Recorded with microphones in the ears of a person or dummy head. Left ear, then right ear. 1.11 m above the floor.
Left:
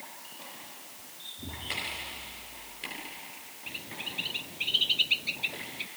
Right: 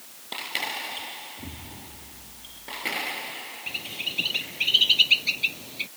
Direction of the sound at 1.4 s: 5° right (ahead or behind).